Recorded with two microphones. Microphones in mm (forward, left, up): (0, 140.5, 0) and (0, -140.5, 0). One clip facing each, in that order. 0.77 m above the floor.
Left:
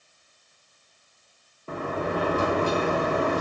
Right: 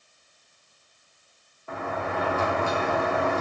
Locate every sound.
1.7 s a sliding door: 35° left (ahead or behind), 0.8 m